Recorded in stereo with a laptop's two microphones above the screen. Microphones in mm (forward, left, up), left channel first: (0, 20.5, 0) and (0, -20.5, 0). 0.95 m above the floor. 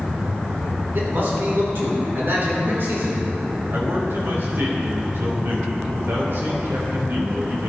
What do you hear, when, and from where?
0.9 s a man speaking: 60° right (ahead or behind), 3.5 m
3.7 s a man speaking: 60° right (ahead or behind), 2.5 m